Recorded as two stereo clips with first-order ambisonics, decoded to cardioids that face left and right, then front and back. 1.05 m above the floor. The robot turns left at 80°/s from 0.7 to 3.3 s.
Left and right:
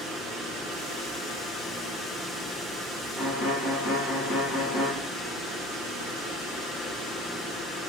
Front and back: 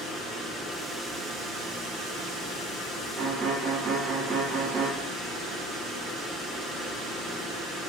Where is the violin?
140° left, 2.0 m; by 4.9 s 130° left, 2.0 m.